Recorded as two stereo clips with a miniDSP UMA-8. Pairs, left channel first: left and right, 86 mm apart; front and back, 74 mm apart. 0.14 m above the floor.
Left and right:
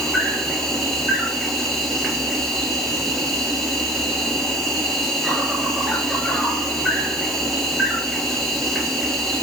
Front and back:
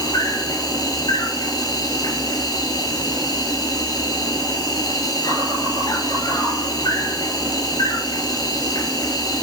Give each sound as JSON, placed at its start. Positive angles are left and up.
{"t": 0.0, "sound": "an insect", "azimuth_deg": 0, "distance_m": 4.0}